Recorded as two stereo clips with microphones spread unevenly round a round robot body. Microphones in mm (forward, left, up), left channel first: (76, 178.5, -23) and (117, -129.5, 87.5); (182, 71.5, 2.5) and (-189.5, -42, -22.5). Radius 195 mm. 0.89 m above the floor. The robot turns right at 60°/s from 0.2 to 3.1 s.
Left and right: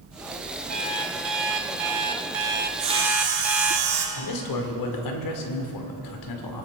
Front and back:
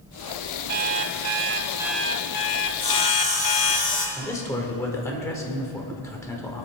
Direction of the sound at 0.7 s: 145° right.